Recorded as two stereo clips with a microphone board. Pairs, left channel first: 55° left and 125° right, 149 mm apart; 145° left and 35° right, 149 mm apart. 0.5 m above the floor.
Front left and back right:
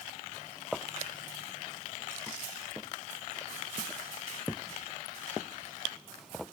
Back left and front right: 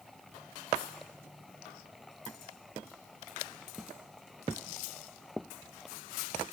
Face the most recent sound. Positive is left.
No sound to turn to.